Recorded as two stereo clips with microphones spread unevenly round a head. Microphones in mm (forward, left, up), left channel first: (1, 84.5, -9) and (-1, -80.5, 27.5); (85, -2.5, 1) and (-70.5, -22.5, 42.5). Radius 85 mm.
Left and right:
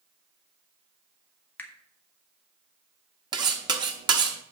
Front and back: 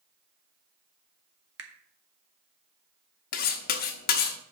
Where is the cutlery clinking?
30° right, 1.0 m.